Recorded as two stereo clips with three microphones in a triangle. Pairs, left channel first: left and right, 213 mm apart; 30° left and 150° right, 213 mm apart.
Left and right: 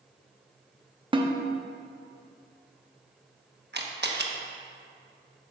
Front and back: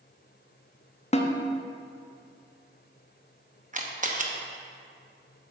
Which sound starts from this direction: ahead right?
A snare drum, at 1.1 s.